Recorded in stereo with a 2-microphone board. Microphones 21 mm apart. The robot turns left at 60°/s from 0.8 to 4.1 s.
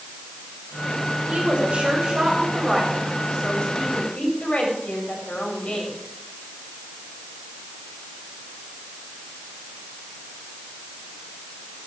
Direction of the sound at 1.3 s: 85° right.